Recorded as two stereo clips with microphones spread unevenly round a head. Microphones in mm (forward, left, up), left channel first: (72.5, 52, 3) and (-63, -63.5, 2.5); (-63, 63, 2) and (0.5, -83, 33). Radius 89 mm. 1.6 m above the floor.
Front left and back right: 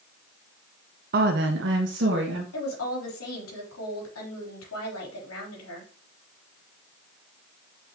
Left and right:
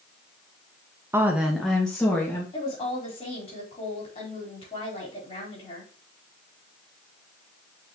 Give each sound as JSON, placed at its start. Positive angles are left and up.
{"t": 1.1, "sound": "a woman speaking", "azimuth_deg": -125, "distance_m": 0.7}
{"t": 2.5, "sound": "a woman speaking", "azimuth_deg": 50, "distance_m": 4.0}